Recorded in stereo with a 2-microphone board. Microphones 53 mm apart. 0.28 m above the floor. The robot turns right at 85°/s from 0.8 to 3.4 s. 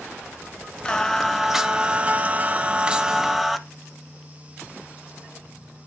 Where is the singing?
20° left (ahead or behind), 0.5 m; by 3.6 s 5° right (ahead or behind), 0.5 m.